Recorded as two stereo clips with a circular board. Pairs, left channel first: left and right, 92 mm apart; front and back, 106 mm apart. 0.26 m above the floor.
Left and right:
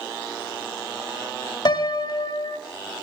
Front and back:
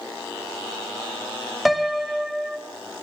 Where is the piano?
90° left, 1.0 m.